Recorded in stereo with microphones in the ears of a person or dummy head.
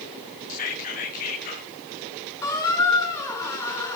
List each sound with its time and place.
0.5 s whispering: 50° left (ahead or behind), 1.5 m
2.4 s a squeak: 20° left (ahead or behind), 2.5 m